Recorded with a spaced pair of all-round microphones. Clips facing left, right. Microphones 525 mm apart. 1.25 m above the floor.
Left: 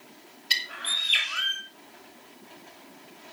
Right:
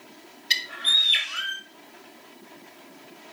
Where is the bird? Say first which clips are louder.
Right 2 dB; 45° right (ahead or behind), 2.5 m.